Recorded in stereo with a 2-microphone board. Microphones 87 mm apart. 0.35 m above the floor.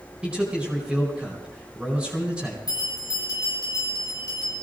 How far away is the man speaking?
About 3 m.